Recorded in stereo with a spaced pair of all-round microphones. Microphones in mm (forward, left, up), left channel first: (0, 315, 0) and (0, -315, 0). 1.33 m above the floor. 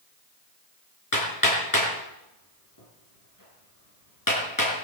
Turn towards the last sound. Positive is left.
turn(degrees=30)  # may be behind; listen again after turning